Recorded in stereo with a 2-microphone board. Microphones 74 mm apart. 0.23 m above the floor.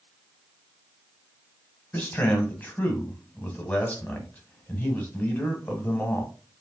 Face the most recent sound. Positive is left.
turn(degrees=20)  # may be behind; listen again after turning